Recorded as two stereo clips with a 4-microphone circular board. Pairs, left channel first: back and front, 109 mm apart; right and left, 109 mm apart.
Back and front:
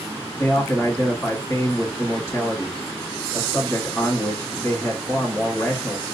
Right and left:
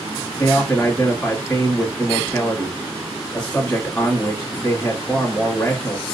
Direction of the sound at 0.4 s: 150° right.